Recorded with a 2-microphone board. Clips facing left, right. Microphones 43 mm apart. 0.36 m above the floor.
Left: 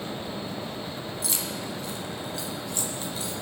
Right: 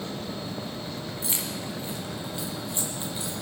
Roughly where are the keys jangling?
Right.